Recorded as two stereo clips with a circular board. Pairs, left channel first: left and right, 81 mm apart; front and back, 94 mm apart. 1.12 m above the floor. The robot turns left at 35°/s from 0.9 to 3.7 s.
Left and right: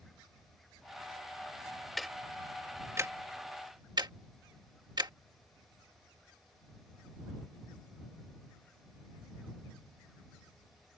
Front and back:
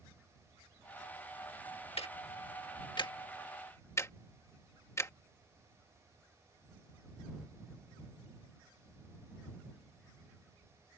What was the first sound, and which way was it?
Ticking, straight ahead.